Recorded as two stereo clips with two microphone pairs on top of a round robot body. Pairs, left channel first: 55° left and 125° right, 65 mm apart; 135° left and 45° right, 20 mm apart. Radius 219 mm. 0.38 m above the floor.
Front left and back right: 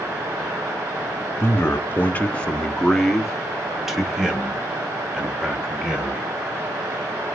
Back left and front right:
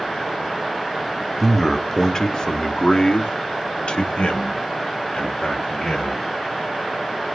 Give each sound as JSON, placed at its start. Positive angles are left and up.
{"t": 1.4, "sound": "a man speaking", "azimuth_deg": 50, "distance_m": 1.1}